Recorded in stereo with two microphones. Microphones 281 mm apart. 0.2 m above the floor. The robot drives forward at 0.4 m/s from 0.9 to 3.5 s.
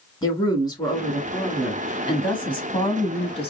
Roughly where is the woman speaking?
Centre.